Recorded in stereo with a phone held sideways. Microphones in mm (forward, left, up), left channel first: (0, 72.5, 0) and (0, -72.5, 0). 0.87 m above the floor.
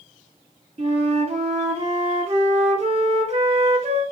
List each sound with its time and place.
0.8 s a flute: 45° right (ahead or behind), 1.1 m